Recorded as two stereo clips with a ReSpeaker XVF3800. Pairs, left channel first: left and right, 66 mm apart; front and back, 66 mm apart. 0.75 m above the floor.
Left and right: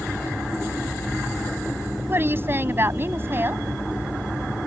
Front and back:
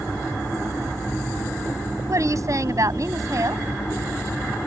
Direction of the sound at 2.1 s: 145° right.